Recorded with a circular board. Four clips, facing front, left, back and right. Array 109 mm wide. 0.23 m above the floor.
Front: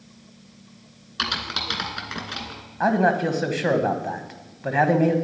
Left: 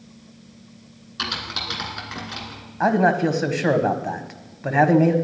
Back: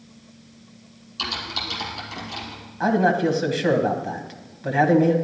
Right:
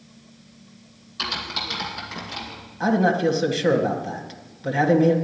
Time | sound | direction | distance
1.2 | typing on a keyboard | 20° left | 2 m
2.8 | a man speaking | 70° left | 1.3 m